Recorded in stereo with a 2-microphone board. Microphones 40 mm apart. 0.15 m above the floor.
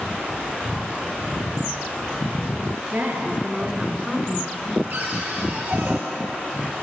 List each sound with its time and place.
2.9 s a woman speaking: 55° right (ahead or behind), 2 m; by 4.8 s 30° left (ahead or behind), 1.8 m
4.9 s a cupboard door: 45° right (ahead or behind), 2.0 m